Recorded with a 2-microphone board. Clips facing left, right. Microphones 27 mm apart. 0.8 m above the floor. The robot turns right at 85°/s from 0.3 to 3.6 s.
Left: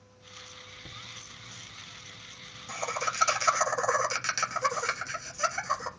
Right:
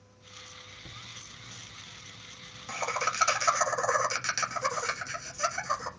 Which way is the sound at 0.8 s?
30° left (ahead or behind).